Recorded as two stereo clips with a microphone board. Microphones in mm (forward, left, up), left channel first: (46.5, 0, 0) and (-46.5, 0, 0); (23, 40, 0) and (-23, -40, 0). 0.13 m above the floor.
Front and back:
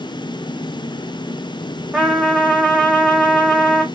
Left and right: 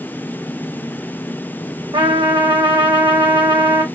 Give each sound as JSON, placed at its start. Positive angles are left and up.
{"t": 1.9, "sound": "a trumpet", "azimuth_deg": -95, "distance_m": 1.3}